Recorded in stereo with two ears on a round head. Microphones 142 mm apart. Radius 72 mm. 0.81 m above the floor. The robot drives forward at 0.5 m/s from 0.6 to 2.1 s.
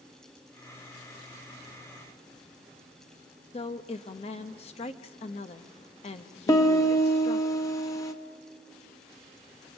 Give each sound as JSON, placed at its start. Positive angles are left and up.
{"t": 3.5, "sound": "a woman speaking", "side_deg": 40, "distance_m": 0.9}
{"t": 6.5, "sound": "a piano", "side_deg": 25, "distance_m": 1.2}